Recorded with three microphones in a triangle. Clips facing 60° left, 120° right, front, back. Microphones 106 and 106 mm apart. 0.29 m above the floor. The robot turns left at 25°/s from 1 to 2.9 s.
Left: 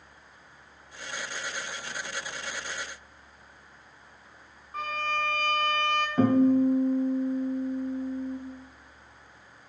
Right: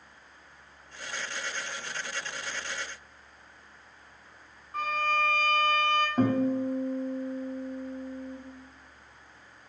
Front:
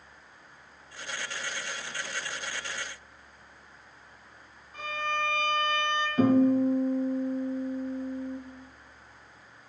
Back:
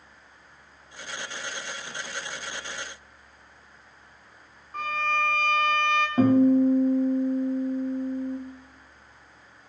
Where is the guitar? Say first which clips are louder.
Left 8 dB, back 3 dB; 155° left, 2 m.